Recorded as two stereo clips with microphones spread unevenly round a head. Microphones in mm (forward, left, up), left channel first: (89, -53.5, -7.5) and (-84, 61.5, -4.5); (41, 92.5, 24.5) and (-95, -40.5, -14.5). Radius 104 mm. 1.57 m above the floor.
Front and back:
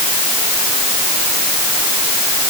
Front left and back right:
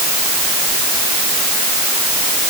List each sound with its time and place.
Only background noise.